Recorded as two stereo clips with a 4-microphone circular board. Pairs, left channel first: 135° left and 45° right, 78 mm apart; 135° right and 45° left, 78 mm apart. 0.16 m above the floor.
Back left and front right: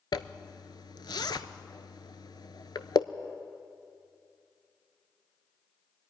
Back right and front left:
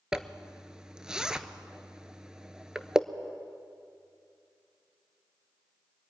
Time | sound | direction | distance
0.1 | a zipper | 125° left | 0.5 m